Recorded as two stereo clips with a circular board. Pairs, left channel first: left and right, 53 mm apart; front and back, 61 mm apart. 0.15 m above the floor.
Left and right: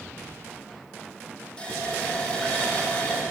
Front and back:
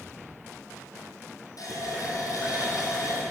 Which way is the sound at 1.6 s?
15° left.